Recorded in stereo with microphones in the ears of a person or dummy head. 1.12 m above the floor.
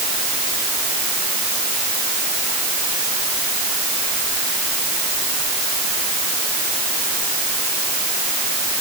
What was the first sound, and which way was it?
Only background noise.